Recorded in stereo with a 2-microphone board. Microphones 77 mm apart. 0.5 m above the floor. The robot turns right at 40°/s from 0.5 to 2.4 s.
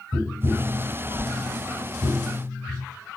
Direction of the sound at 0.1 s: 25° right (ahead or behind).